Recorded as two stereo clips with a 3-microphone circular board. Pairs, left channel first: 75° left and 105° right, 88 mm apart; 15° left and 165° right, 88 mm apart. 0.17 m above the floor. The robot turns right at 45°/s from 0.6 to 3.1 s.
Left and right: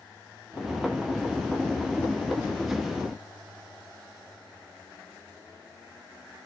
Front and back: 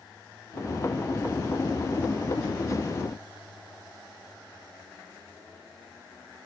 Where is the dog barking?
I don't hear a dog barking.